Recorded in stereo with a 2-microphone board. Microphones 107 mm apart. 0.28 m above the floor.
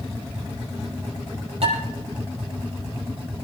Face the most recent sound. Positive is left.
turn(degrees=-70)  # may be behind; listen again after turning